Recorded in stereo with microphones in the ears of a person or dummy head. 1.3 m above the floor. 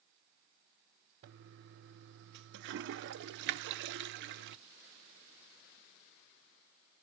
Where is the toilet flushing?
60° right (ahead or behind), 0.5 m.